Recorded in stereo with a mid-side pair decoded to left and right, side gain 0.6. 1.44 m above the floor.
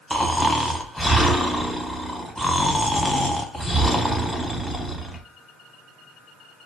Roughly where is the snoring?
Ahead.